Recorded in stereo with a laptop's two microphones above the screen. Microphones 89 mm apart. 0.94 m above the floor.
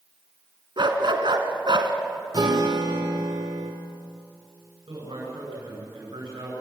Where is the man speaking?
80° right, 10 m.